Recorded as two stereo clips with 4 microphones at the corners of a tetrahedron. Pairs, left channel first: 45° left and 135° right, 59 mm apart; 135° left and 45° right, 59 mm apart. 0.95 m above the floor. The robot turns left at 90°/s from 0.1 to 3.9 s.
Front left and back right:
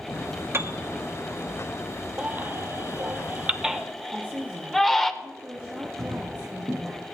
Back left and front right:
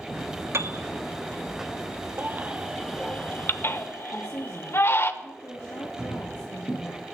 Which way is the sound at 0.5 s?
85° right.